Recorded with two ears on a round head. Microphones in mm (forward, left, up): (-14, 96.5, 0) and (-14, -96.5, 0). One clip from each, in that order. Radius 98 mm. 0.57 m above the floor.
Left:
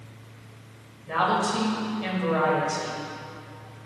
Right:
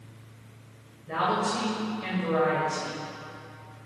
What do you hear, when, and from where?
1.1 s a woman speaking: 25° left (ahead or behind), 3 m